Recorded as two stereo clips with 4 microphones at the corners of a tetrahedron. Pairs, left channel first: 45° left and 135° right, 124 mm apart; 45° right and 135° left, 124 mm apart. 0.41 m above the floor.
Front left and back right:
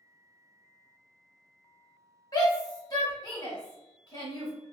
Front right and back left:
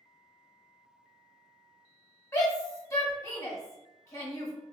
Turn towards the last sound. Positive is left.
turn(degrees=5)